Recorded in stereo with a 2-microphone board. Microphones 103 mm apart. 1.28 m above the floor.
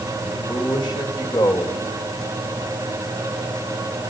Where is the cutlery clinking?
I don't hear cutlery clinking.